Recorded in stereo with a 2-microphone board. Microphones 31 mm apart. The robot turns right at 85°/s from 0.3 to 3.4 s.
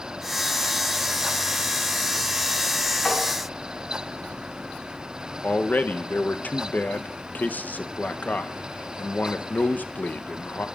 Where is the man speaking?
60° left (ahead or behind), 0.8 m.